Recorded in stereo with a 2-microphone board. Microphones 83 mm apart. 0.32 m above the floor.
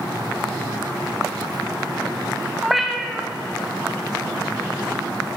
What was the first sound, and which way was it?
A cat meowing, 5° right (ahead or behind).